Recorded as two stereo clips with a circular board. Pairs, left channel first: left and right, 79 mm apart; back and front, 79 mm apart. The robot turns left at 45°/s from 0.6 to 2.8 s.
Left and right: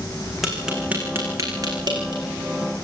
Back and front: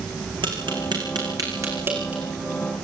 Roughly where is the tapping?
Ahead.